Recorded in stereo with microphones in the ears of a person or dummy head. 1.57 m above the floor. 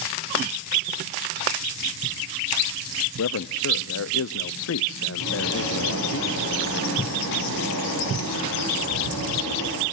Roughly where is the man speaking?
Left.